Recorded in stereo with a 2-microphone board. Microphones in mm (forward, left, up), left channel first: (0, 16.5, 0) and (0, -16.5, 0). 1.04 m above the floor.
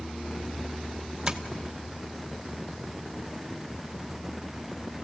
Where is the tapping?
20° right (ahead or behind), 1.0 m.